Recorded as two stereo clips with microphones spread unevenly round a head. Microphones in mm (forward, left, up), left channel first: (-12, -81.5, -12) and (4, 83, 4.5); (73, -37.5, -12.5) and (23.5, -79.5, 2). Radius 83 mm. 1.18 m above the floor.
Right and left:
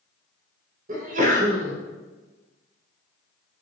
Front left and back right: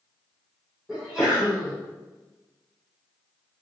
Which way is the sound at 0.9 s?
130° left.